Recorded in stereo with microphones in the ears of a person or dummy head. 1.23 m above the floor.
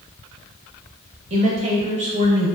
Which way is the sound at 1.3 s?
35° right (ahead or behind).